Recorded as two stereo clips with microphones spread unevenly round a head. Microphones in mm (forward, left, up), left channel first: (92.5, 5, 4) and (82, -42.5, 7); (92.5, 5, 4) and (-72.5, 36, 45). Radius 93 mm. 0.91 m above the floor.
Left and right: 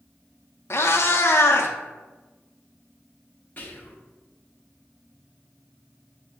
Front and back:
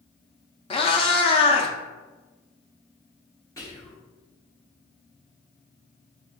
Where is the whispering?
40° left, 0.8 m.